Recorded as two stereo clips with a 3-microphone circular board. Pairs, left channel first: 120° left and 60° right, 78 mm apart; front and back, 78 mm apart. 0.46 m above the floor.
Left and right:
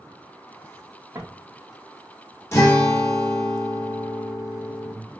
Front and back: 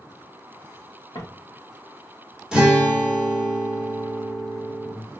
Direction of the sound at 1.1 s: 15° right.